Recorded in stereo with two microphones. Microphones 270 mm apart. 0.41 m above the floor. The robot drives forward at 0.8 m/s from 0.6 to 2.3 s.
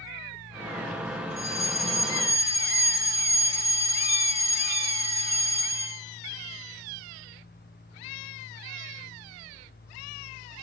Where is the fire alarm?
75° left (ahead or behind), 8 m.